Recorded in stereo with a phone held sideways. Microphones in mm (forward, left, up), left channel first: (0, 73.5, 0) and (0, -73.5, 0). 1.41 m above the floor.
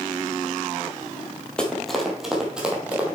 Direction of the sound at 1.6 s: 5° left (ahead or behind).